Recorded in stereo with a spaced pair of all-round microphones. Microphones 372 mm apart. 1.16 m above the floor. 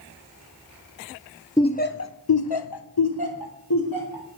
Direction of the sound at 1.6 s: 10° left (ahead or behind).